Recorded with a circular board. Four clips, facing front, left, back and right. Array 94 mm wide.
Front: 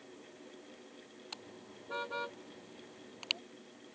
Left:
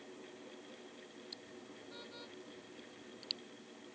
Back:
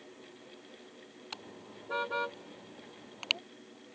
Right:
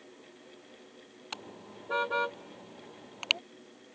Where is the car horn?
105° right; by 3.4 s 110° right.